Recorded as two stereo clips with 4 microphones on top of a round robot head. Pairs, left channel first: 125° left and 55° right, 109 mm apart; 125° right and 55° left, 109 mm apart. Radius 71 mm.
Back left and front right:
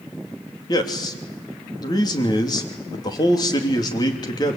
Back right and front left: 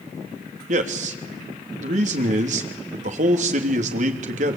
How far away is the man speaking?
About 3 m.